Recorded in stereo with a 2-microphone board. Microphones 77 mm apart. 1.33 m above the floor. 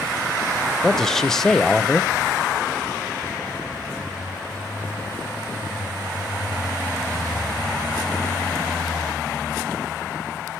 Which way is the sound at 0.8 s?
5° left (ahead or behind).